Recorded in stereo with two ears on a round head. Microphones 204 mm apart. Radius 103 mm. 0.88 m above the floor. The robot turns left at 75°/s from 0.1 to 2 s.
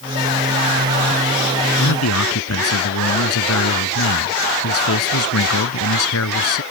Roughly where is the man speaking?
Left.